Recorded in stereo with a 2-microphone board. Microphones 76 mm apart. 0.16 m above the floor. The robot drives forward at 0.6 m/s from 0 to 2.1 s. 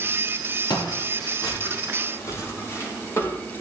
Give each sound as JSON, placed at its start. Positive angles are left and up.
{"t": 0.7, "sound": "footsteps", "side_deg": 70, "distance_m": 3.5}